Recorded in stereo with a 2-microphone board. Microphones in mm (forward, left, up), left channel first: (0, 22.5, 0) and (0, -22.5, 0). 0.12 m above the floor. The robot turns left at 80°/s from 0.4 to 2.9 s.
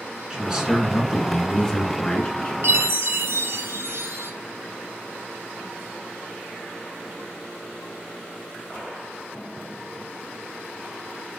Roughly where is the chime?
Right.